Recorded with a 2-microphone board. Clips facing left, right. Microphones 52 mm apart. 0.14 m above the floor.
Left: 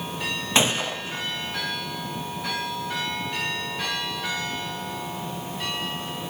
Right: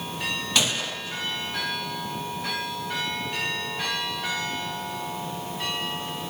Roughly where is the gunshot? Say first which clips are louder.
Left 5 dB; left.